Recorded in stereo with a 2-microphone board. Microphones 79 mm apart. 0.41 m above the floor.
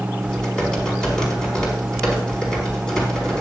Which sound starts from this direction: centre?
Typing on a keyboard, at 0.2 s.